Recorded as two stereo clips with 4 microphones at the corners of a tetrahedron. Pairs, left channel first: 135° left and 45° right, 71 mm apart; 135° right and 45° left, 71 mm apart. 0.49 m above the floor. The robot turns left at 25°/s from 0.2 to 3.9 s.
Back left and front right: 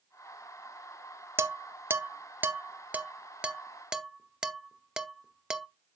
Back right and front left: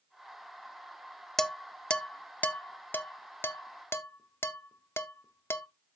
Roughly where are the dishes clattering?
Ahead right.